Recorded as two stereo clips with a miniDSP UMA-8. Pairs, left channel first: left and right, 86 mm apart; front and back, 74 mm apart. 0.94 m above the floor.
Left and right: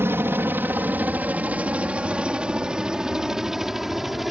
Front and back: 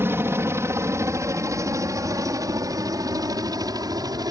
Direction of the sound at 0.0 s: 140° right.